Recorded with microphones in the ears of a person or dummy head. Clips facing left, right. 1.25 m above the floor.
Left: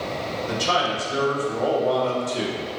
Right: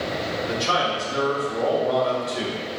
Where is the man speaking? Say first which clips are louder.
Left 2 dB; 45° left (ahead or behind), 1.8 m.